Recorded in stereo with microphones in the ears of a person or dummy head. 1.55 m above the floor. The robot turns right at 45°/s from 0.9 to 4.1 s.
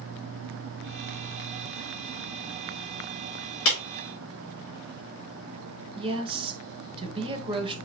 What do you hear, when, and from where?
3.6 s a clap: 75° left (ahead or behind), 3 m; by 3.8 s 70° left (ahead or behind), 3 m
6.0 s a woman speaking: 35° right (ahead or behind), 1.2 m